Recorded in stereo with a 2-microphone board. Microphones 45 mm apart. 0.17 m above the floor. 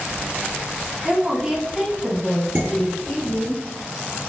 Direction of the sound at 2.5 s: 40° right (ahead or behind).